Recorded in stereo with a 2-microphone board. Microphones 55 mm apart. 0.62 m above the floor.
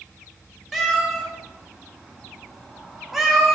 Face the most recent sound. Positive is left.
turn(degrees=0)  # may be behind; listen again after turning